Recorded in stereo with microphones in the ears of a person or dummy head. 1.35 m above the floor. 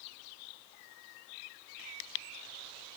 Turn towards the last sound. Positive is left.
No sound to turn to.